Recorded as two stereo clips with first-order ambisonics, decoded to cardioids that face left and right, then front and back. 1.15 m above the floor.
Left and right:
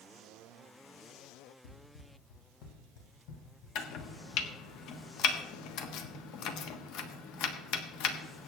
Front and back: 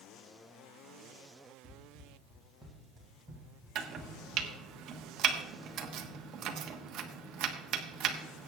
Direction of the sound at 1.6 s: 105° left.